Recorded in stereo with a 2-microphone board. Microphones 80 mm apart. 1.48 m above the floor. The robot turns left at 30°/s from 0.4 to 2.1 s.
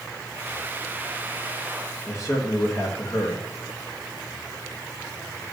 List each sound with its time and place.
2.1 s a man speaking: 40° left (ahead or behind), 2 m